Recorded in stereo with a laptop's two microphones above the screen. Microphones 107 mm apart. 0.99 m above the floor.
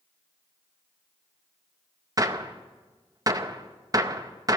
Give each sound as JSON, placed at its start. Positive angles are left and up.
{"t": 2.2, "sound": "a gunshot", "side_deg": -35, "distance_m": 0.6}